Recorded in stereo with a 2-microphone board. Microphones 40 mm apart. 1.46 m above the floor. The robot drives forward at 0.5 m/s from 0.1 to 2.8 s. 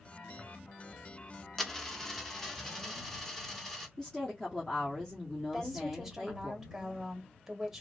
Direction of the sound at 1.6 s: 10° left (ahead or behind).